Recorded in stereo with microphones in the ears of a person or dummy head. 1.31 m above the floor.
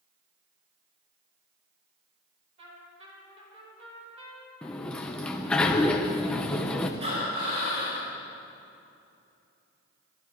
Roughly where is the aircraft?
I don't hear an aircraft.